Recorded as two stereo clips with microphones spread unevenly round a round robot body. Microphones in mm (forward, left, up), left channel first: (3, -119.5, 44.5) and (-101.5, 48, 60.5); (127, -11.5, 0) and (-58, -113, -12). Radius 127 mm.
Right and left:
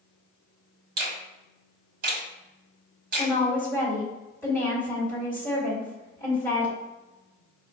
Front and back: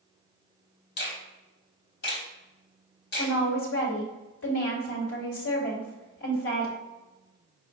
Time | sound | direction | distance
1.0 | a finger snap | 75° left | 1.2 m
3.2 | a woman speaking | 20° left | 2 m